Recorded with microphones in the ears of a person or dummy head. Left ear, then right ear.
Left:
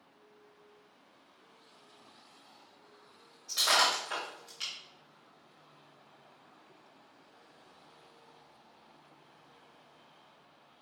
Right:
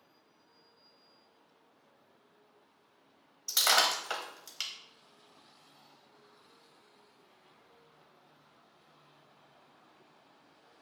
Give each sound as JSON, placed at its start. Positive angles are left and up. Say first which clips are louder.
{"t": 3.5, "sound": "breaking glass", "louder": "even", "side_deg": -45, "distance_m": 0.9}